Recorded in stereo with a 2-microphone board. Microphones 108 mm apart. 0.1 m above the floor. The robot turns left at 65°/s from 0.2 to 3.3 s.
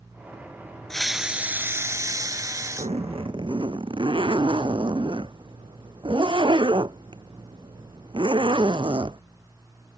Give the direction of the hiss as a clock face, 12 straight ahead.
12 o'clock.